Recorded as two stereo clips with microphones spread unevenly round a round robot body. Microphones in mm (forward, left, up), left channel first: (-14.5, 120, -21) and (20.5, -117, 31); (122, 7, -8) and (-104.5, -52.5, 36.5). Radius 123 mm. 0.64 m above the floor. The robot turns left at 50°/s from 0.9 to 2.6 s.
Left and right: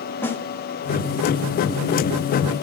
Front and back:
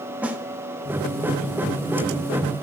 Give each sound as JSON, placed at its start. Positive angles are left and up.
{"t": 0.2, "sound": "a snare drum", "azimuth_deg": 90, "distance_m": 0.8}